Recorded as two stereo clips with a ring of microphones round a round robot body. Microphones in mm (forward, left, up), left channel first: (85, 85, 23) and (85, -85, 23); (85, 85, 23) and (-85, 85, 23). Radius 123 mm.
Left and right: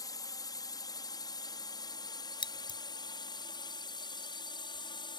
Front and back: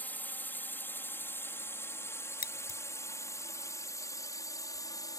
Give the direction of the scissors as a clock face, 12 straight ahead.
11 o'clock.